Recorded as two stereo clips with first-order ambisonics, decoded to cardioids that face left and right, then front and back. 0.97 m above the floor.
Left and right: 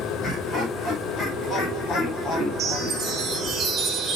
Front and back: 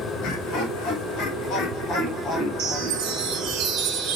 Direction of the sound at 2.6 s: 155° right.